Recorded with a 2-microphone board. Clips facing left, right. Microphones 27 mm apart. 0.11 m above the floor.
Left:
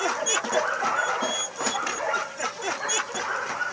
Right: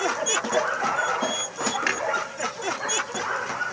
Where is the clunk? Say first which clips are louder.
Right 4 dB; 50° right (ahead or behind), 2.5 m.